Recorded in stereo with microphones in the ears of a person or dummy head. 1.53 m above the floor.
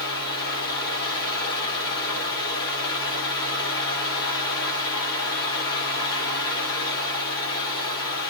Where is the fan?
20° left (ahead or behind), 1.6 m.